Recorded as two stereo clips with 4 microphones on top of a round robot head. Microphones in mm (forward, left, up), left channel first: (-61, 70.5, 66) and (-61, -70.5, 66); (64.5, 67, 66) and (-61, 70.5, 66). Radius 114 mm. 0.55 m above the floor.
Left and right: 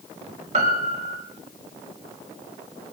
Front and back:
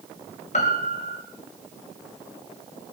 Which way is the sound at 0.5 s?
40° right.